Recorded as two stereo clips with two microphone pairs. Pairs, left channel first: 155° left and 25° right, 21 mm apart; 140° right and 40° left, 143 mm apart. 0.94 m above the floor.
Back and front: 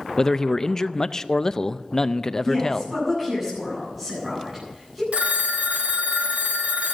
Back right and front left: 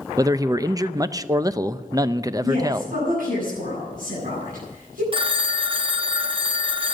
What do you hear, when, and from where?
0.2 s a man speaking: 100° left, 0.5 m
2.4 s a woman speaking: 50° left, 9 m
5.1 s a phone ringing: 10° right, 0.8 m